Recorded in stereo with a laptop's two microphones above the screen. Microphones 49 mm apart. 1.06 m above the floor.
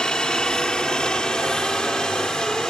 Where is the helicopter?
15° left (ahead or behind).